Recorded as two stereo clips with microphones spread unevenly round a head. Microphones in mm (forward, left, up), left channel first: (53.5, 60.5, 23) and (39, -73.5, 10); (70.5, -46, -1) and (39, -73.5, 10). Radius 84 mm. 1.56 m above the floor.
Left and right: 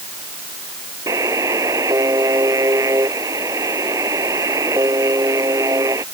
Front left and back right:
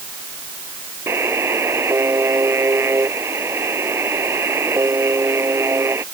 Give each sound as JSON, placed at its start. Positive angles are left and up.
{"t": 1.1, "sound": "a buzzer", "azimuth_deg": -170}